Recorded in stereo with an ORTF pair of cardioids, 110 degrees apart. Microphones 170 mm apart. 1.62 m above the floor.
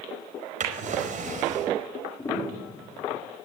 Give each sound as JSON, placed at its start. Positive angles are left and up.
{"t": 0.6, "sound": "a drawer", "azimuth_deg": -45, "distance_m": 4.5}
{"t": 2.2, "sound": "a piano", "azimuth_deg": 15, "distance_m": 5.0}